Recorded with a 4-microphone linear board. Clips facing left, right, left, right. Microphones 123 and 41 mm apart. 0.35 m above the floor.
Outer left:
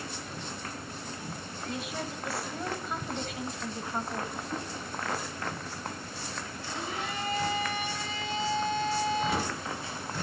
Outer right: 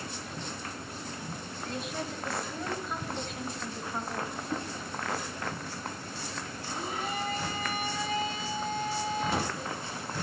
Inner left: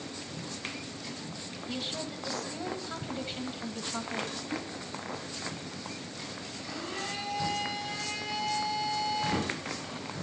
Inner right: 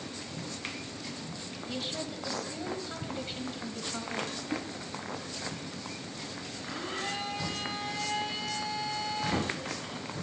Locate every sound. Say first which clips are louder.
1.7 s a woman speaking: even, even; 5° left (ahead or behind), 2 m
4.5 s a whoosh: outer right 3 dB, inner right 2 dB; 80° right, 5 m
6.6 s a blender: outer right 1 dB, inner right 2 dB; 45° right (ahead or behind), 5 m